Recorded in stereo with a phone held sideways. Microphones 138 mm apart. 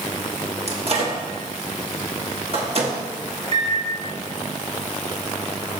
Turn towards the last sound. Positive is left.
turn(degrees=-50)  # may be behind; listen again after turning